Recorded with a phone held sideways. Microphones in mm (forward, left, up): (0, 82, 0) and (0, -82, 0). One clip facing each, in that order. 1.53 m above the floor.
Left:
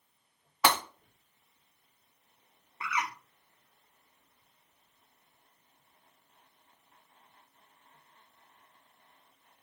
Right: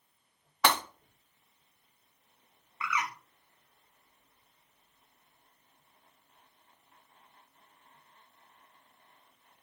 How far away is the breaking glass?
About 1.1 m.